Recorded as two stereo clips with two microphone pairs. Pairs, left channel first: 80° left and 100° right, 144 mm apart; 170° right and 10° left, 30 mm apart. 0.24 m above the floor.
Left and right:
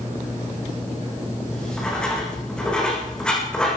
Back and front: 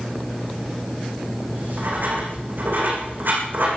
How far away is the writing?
About 8.5 m.